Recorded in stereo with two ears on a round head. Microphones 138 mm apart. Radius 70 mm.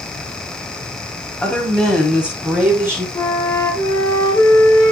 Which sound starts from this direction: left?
A flute, at 3.1 s.